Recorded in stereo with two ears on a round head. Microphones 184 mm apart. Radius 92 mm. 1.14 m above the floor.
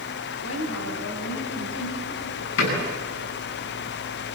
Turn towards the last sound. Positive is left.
turn(degrees=70)  # may be behind; listen again after turning